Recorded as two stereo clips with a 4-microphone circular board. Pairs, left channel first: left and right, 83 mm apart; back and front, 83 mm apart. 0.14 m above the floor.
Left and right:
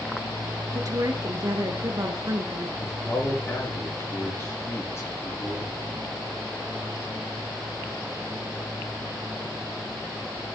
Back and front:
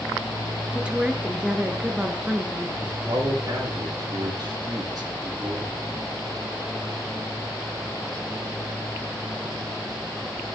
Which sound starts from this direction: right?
A woman speaking, at 0.7 s.